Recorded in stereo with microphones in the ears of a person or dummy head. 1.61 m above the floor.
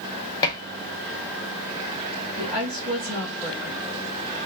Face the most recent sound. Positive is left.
turn(degrees=-35)  # may be behind; listen again after turning